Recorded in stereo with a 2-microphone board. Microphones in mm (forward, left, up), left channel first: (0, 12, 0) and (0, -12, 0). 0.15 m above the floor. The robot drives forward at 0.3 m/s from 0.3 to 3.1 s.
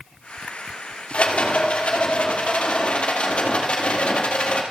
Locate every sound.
1.1 s a rattle: 70° left (ahead or behind), 1.9 m; by 4.6 s 55° left (ahead or behind), 2 m